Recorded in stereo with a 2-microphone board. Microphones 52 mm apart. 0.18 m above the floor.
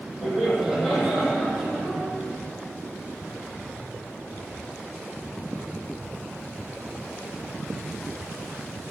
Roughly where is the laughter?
Centre.